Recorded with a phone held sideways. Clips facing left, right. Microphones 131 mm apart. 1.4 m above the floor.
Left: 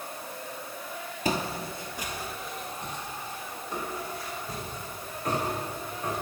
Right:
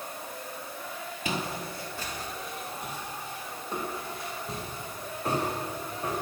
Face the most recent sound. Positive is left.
turn(degrees=-30)  # may be behind; listen again after turning